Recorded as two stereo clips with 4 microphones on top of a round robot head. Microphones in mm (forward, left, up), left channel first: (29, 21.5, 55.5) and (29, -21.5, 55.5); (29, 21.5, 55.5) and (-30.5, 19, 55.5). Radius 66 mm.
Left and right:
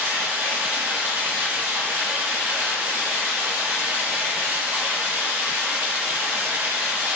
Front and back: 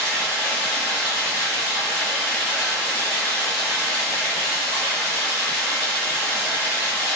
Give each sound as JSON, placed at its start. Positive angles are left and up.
{"t": 0.0, "sound": "running water", "azimuth_deg": -110, "distance_m": 1.8}